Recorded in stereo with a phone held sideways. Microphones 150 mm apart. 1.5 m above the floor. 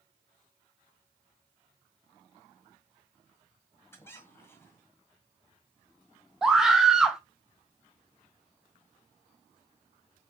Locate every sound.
3.9 s a squeak: 15° left (ahead or behind), 1.7 m
6.4 s a scream: 5° right (ahead or behind), 1.0 m